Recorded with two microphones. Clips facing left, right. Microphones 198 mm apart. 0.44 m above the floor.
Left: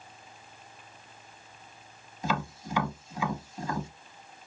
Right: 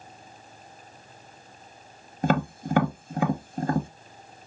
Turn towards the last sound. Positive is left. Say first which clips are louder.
# right 8 dB
turn(degrees=-60)  # may be behind; listen again after turning